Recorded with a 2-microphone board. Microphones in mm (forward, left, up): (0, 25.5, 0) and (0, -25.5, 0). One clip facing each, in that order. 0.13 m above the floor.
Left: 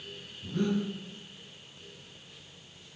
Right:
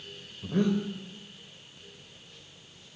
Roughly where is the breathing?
Right.